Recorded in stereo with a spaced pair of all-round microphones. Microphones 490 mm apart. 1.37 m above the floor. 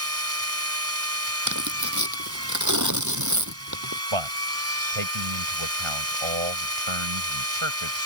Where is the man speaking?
75° right (ahead or behind).